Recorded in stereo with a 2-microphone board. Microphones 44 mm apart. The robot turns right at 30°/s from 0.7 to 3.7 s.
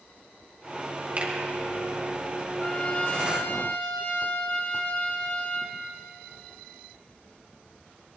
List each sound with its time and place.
1.2 s a finger snap: 35° right (ahead or behind), 2.5 m; by 1.3 s 40° right (ahead or behind), 2.5 m
2.6 s a trumpet: 30° left, 1.8 m; by 5.8 s 65° left, 1.8 m